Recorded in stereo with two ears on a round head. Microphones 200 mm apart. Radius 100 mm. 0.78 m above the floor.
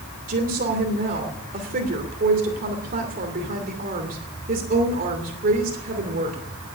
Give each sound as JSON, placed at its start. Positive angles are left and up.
{"t": 0.3, "sound": "a woman speaking", "side_deg": -40, "distance_m": 2.5}